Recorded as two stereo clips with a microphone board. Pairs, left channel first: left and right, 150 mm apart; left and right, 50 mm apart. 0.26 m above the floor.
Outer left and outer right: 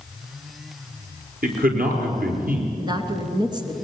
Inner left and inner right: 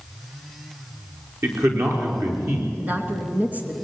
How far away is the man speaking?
About 5 m.